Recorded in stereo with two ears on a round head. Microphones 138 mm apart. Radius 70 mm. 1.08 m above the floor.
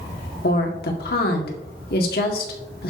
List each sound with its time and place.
0.4 s a woman speaking: 65° left (ahead or behind), 2.0 m